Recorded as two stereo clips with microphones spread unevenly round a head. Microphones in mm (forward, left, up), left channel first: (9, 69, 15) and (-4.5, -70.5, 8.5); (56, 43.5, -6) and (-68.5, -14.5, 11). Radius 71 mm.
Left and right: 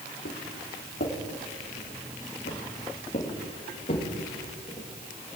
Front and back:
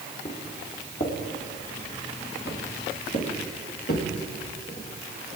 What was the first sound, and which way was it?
Footsteps, 70° left.